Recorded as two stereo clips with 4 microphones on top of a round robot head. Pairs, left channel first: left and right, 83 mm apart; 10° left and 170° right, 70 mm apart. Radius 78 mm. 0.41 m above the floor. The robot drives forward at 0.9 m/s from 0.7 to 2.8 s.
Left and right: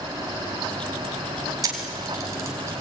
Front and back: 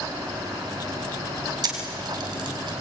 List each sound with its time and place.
1.6 s a camera shutter: 140° right, 3 m; by 2.7 s 150° right, 3.5 m